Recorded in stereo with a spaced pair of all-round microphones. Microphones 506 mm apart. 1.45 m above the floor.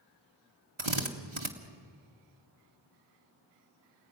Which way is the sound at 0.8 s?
65° right (ahead or behind).